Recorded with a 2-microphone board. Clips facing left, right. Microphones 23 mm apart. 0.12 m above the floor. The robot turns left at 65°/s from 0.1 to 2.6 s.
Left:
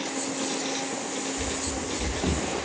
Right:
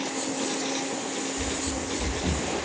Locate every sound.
1.4 s running footsteps: 5° left (ahead or behind), 1.4 m; by 2.5 s 55° left (ahead or behind), 0.6 m